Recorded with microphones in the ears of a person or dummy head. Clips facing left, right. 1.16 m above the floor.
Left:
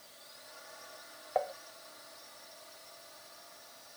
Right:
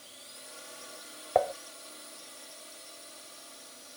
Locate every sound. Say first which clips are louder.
0.0 s a drone: right 4 dB; 40° right (ahead or behind)
1.4 s dishes clattering: right 7 dB; 55° right (ahead or behind)